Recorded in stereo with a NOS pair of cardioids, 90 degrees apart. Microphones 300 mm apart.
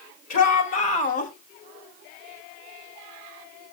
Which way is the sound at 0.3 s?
60° left.